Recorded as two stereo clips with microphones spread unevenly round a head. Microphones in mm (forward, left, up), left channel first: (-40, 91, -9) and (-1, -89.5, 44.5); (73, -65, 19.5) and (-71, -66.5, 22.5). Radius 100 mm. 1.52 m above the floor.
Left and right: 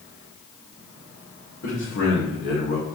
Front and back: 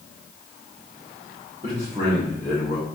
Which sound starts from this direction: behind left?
A man speaking, at 1.6 s.